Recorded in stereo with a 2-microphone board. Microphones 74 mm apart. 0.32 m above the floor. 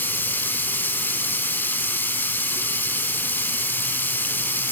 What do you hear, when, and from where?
0.0 s running water: 25° left (ahead or behind), 0.9 m